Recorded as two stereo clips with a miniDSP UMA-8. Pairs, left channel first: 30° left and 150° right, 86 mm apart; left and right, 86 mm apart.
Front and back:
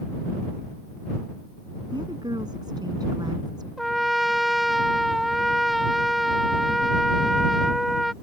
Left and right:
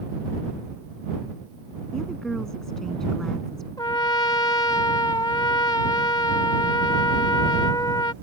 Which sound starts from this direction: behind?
A woman speaking, at 1.9 s.